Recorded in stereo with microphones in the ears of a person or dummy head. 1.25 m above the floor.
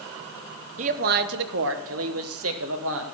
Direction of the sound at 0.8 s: 35° right (ahead or behind).